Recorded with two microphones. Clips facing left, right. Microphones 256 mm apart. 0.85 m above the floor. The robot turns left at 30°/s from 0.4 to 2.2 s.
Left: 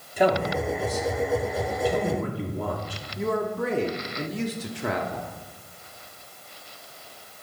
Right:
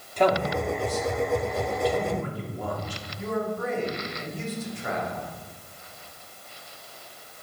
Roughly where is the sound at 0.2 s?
Centre.